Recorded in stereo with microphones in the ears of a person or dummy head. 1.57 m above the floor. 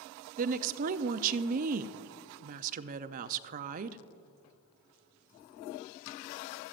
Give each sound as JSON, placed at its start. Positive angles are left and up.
{"t": 0.4, "sound": "a woman speaking", "side_deg": -45, "distance_m": 0.5}